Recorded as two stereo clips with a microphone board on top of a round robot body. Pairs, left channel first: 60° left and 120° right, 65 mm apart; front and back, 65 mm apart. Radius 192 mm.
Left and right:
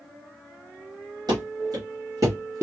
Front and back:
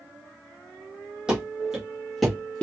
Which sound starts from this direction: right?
Running footsteps, at 1.3 s.